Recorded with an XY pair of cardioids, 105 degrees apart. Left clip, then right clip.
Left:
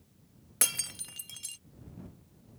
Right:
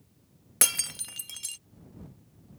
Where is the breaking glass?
30° right.